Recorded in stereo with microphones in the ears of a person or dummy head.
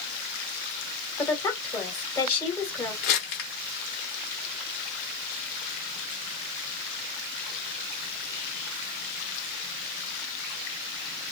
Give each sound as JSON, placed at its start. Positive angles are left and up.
{"t": 1.2, "sound": "a woman speaking", "side_deg": 20, "distance_m": 1.5}
{"t": 3.0, "sound": "crumpling", "side_deg": 60, "distance_m": 1.0}